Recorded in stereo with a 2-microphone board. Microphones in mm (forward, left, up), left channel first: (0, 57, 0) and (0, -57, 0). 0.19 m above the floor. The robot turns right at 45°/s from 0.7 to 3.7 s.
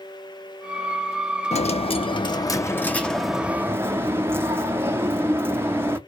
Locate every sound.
1.5 s a dropped coin: 100° left, 0.5 m; by 6.0 s 160° right, 0.5 m